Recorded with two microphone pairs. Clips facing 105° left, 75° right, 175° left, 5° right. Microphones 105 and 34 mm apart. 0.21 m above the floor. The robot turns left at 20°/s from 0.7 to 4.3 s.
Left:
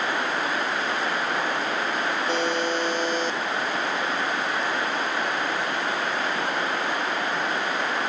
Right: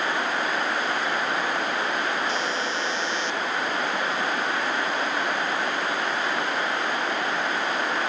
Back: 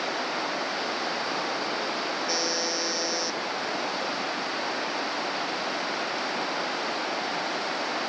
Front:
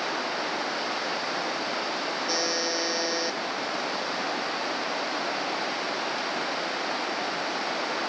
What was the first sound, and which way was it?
A buzzer, 85° left.